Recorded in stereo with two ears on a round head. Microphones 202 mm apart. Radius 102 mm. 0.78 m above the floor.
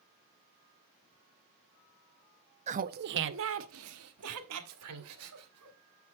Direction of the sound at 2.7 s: 30° right (ahead or behind).